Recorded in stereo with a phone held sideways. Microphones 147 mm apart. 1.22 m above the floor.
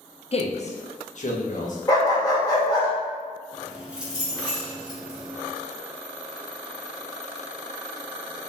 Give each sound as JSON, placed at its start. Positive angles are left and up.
{"t": 0.3, "sound": "a man speaking", "side_deg": 45, "distance_m": 0.6}
{"t": 1.9, "sound": "a dog barking", "side_deg": 25, "distance_m": 1.6}
{"t": 3.5, "sound": "keys jangling", "side_deg": -5, "distance_m": 1.4}